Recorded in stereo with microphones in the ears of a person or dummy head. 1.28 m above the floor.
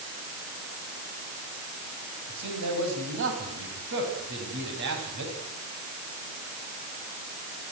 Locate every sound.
2.3 s a man speaking: 70° right (ahead or behind), 7 m